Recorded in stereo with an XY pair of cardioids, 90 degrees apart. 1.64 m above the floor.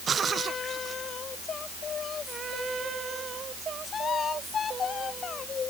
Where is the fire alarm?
I don't hear a fire alarm.